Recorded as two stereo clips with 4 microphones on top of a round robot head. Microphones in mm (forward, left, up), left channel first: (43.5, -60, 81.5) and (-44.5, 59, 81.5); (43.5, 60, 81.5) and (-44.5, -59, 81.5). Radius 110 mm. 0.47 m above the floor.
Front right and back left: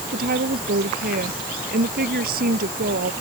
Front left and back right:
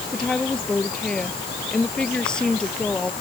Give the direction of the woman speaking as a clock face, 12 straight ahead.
7 o'clock.